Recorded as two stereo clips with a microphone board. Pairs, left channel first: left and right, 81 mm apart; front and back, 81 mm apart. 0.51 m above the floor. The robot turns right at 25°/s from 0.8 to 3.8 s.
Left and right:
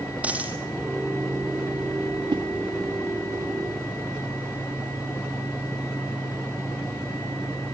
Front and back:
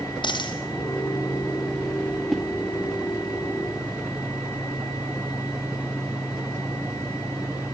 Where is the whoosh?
90° right, 0.5 m; by 2.4 s 85° right, 0.5 m.